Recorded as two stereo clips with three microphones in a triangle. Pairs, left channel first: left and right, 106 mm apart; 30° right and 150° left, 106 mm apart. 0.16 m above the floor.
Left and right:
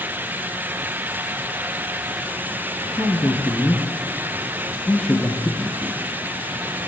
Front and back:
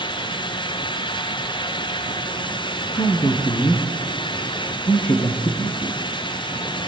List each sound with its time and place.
2.9 s a man speaking: 10° left, 4 m